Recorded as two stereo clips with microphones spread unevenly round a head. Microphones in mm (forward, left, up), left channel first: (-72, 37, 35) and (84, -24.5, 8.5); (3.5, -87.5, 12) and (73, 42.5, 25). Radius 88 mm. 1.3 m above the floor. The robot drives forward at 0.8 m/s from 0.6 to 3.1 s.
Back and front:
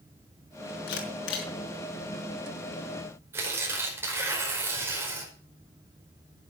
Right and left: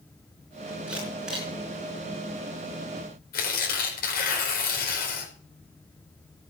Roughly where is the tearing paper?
Right.